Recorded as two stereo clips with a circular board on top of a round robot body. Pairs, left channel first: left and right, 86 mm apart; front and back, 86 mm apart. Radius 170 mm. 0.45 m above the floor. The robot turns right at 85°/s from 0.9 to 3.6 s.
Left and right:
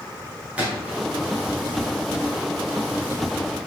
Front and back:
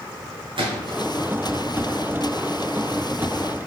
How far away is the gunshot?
About 2.5 m.